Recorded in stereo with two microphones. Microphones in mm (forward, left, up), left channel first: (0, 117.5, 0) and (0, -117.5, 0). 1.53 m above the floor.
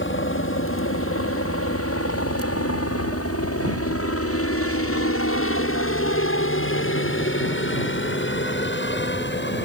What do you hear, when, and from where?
0.0 s a helicopter: 55° left (ahead or behind); by 9.7 s 45° left (ahead or behind)